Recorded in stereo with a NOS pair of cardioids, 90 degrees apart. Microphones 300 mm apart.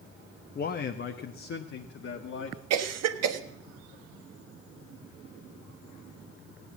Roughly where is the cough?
Ahead right.